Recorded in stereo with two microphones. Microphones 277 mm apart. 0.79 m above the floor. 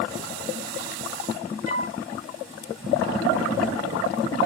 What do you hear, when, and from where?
1.6 s a flute: 50° right (ahead or behind), 3 m